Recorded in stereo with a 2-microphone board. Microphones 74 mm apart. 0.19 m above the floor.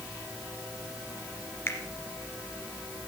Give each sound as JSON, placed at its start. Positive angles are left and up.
{"t": 1.7, "sound": "a finger snap", "side_deg": 30, "distance_m": 2.0}